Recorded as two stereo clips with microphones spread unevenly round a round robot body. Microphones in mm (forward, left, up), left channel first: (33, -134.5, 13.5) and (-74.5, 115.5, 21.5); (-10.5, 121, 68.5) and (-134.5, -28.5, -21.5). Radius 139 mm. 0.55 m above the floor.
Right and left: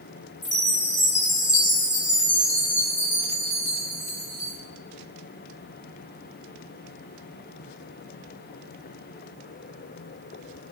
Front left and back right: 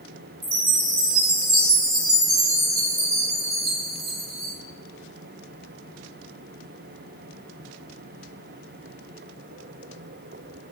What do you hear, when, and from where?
0.4 s a chime: 125° right, 3 m